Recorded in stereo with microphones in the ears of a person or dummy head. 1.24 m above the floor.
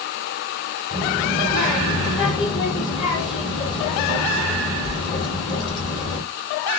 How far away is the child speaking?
About 1.6 m.